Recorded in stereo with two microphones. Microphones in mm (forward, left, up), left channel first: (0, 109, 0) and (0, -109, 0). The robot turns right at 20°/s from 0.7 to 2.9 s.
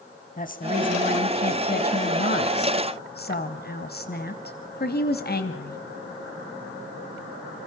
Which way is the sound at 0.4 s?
60° left.